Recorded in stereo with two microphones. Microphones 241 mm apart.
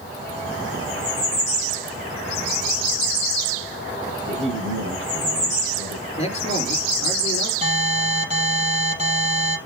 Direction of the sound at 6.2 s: 25° left (ahead or behind).